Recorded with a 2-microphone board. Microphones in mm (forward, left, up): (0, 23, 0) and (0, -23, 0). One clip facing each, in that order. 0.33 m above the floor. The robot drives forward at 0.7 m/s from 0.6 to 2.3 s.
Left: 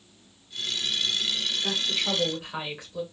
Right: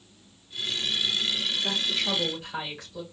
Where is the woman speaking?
15° left (ahead or behind), 1.4 m.